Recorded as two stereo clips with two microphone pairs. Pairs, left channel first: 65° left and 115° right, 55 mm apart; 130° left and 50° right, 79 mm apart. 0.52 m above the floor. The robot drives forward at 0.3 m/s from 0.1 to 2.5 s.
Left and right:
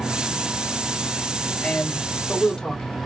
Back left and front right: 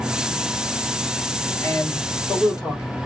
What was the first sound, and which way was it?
A man speaking, 120° left.